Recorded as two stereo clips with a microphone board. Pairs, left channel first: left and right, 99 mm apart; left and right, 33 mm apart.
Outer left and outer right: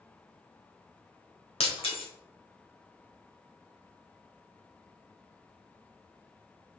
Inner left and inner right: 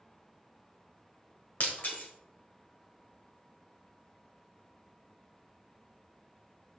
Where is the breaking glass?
65° left (ahead or behind), 1.6 m.